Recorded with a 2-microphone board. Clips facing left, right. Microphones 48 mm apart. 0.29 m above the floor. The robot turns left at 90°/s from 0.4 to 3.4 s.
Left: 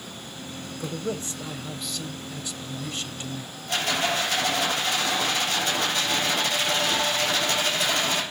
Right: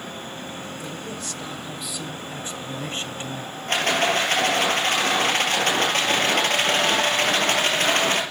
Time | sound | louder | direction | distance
0.8 | a man speaking | left 2 dB | 90° left | 1.3 m
3.7 | a rattle | right 4 dB | 50° right (ahead or behind) | 4.5 m